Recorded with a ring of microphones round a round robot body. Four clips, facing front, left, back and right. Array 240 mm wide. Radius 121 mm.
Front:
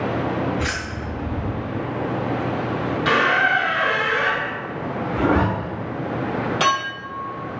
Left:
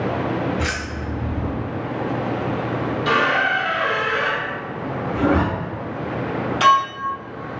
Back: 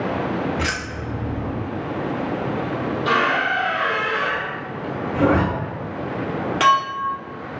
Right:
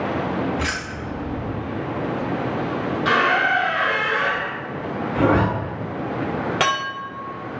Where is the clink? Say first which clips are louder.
Left 11 dB, back 7 dB; 110° right, 1.6 m.